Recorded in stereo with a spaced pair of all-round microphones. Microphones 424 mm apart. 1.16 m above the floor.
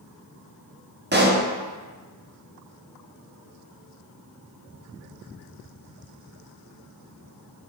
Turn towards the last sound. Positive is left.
turn(degrees=-25)  # may be behind; listen again after turning